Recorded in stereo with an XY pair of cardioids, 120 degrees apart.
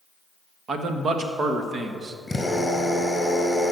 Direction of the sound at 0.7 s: 45° right.